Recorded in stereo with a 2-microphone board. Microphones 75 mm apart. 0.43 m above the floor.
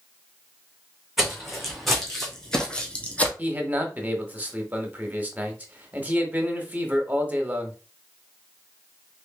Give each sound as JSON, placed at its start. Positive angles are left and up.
{"t": 1.2, "sound": "footsteps", "side_deg": 0, "distance_m": 1.9}
{"t": 3.4, "sound": "a man speaking", "side_deg": -20, "distance_m": 0.9}